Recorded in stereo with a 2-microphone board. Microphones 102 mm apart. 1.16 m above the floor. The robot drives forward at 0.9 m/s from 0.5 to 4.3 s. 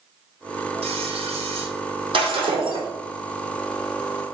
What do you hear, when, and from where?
0.8 s frying: 85° right, 3 m; by 1.7 s 80° right, 3 m
2.1 s breaking glass: 55° right (ahead or behind), 3.5 m; by 2.9 s 50° right (ahead or behind), 4 m